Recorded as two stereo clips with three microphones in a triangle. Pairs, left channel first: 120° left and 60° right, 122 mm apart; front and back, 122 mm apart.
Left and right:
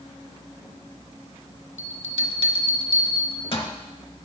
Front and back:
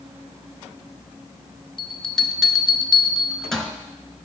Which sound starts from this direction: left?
A bell, at 1.8 s.